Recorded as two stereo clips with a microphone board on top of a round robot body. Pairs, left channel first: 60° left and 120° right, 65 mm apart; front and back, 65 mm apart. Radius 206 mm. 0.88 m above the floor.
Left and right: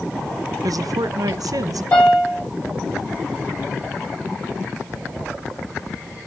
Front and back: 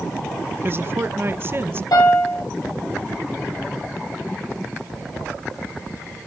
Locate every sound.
0.6 s a woman speaking: 130° right, 0.8 m
1.9 s a piano: 5° right, 9 m